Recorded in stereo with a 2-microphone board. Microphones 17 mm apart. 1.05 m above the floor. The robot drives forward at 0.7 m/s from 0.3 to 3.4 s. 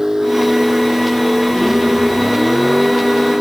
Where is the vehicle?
25° right (ahead or behind); by 3.4 s 30° right (ahead or behind).